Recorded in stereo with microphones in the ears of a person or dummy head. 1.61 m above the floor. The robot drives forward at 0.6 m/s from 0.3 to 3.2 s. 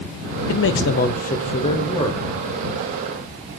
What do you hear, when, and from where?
0.5 s a man speaking: 60° left (ahead or behind), 0.5 m; by 2.2 s 20° left (ahead or behind), 1.3 m